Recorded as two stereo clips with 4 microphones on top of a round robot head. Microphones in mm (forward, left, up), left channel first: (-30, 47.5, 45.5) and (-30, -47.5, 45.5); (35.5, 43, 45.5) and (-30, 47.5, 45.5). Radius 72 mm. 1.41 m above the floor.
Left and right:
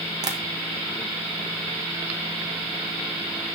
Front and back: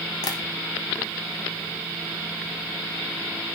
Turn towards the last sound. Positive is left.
turn(degrees=-35)